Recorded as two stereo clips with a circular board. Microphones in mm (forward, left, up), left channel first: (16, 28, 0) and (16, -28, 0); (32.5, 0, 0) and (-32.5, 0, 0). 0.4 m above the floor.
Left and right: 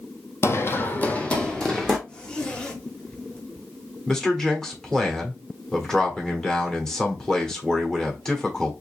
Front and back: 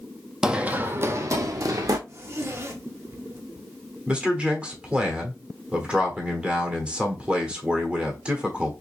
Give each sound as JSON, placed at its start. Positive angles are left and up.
{"t": 0.4, "sound": "running footsteps", "azimuth_deg": 105, "distance_m": 0.6}
{"t": 2.1, "sound": "a zipper", "azimuth_deg": 155, "distance_m": 0.9}
{"t": 4.1, "sound": "a man speaking", "azimuth_deg": 155, "distance_m": 1.1}